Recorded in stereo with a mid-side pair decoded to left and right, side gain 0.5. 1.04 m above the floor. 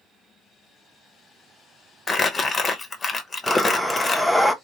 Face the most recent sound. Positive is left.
turn(degrees=5)